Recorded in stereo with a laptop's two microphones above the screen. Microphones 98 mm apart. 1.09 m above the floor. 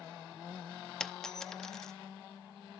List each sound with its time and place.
1.0 s a dropped coin: 5° left (ahead or behind), 0.6 m